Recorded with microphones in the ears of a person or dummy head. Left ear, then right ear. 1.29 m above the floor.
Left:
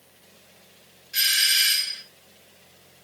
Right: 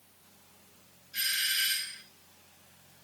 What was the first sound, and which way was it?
A doorbell, 50° left (ahead or behind).